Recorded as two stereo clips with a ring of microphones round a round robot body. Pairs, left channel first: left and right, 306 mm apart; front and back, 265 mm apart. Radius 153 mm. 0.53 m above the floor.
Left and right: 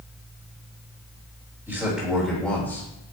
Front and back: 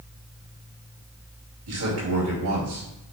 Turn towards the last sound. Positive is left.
turn(degrees=170)